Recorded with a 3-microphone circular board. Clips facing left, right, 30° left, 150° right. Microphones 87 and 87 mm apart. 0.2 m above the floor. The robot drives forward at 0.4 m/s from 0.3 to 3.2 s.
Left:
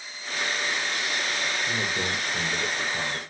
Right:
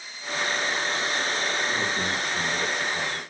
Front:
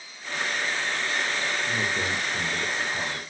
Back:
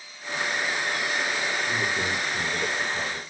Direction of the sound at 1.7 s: 40° left.